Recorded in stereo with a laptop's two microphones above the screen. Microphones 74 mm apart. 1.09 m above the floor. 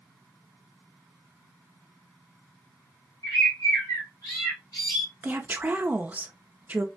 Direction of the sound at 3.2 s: 55° left (ahead or behind).